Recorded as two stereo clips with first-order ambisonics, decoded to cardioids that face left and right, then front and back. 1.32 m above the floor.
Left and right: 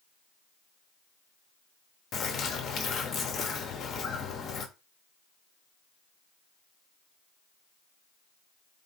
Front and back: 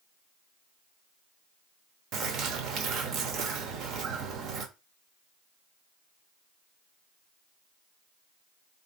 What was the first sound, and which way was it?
A bird, 145° left.